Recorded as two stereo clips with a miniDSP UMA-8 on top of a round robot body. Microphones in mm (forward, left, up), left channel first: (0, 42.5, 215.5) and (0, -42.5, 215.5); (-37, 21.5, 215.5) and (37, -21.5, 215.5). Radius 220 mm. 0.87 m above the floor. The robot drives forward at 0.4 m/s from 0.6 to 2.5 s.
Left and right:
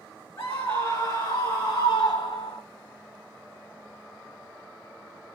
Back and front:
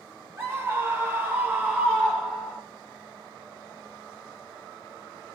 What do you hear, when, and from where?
0.4 s a scream: 35° left, 1.4 m; by 2.6 s 65° left, 1.0 m